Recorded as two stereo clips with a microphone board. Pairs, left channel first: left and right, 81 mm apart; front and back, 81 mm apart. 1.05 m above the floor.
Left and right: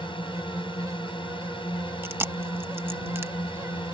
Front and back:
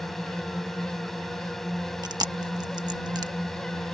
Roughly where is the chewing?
Behind right.